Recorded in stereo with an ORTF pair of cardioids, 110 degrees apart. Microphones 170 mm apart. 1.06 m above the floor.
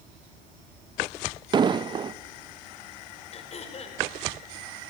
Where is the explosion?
30° right, 0.7 m.